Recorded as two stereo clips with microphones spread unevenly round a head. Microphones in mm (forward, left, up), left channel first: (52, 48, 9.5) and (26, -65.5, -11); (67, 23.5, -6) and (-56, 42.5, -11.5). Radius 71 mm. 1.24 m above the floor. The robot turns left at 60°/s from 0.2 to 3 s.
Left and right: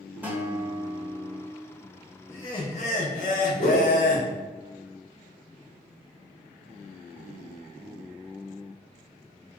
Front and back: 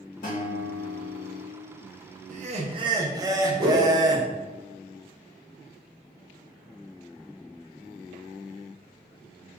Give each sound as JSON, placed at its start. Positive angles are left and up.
{"t": 0.2, "sound": "a guitar", "azimuth_deg": -25, "distance_m": 0.9}
{"t": 2.3, "sound": "laughter", "azimuth_deg": 155, "distance_m": 0.6}
{"t": 3.6, "sound": "a whoosh", "azimuth_deg": 125, "distance_m": 1.3}